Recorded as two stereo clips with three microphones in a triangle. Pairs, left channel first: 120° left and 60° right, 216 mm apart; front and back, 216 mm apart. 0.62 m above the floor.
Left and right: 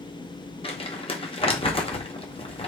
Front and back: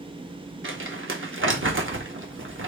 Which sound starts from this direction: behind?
Crumpling, at 0.6 s.